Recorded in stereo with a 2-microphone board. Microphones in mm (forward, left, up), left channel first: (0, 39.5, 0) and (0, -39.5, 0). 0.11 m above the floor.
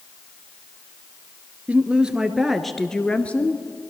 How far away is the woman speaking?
About 1.6 m.